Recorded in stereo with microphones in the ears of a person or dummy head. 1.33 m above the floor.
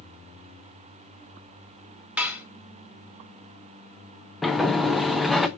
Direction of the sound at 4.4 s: Centre (ahead or behind).